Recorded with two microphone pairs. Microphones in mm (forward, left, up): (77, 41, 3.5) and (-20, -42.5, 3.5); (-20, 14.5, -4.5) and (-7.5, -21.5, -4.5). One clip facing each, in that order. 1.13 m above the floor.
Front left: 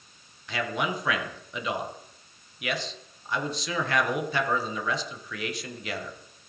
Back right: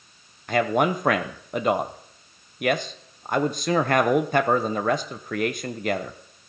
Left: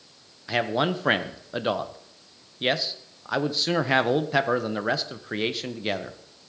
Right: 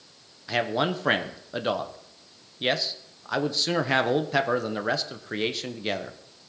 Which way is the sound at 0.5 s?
165° right.